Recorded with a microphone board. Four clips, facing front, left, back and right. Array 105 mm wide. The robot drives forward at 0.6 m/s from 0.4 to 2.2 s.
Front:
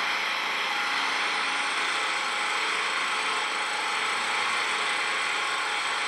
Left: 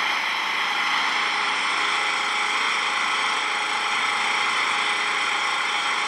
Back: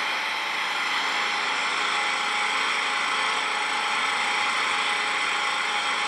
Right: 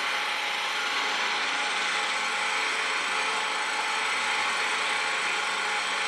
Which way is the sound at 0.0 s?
95° left.